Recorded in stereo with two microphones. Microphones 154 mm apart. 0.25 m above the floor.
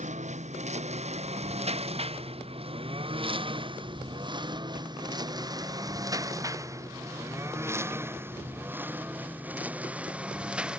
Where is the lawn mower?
45° right (ahead or behind); by 10.8 s 5° right (ahead or behind).